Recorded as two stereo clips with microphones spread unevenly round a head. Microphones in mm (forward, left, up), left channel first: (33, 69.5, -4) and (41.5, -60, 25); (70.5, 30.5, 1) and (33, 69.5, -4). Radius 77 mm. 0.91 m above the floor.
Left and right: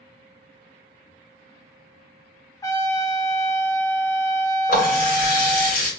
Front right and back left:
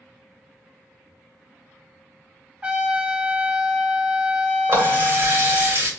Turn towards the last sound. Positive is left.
turn(degrees=90)